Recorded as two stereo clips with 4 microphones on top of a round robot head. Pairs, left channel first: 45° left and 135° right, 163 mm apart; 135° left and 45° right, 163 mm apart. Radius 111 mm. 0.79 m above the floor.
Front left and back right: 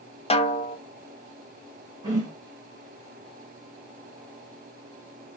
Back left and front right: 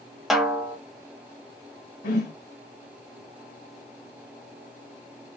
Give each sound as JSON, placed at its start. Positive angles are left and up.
{"t": 0.3, "sound": "a snare drum", "azimuth_deg": 40, "distance_m": 0.8}
{"t": 2.0, "sound": "a whoosh", "azimuth_deg": 155, "distance_m": 2.0}